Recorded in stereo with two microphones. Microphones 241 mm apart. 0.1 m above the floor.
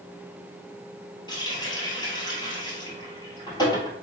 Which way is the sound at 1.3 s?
20° left (ahead or behind).